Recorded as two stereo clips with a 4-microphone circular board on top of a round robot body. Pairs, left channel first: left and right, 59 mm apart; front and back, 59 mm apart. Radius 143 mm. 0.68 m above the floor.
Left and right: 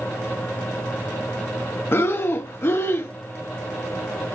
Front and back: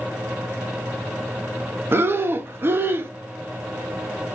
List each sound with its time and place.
1.9 s breathing: 135° left, 0.7 m